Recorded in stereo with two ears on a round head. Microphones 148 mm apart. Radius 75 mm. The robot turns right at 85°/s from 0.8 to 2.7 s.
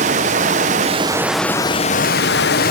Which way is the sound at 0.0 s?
45° right.